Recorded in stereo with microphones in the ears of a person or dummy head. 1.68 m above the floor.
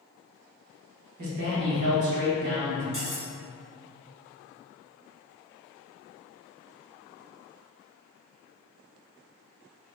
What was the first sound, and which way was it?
A man speaking, 55° right (ahead or behind).